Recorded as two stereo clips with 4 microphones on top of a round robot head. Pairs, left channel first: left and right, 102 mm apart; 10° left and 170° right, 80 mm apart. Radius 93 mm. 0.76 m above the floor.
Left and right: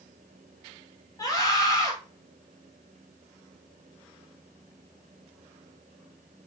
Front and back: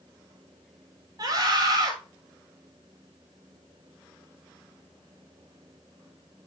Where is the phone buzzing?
I don't hear a phone buzzing.